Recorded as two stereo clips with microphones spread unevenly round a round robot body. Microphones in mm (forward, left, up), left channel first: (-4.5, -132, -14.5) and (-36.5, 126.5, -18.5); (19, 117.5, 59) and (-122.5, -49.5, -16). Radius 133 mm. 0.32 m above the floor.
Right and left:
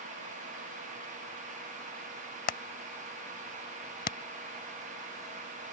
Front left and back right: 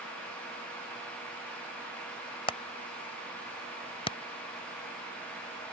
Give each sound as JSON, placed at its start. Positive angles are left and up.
{"t": 2.5, "sound": "hammering", "azimuth_deg": -35}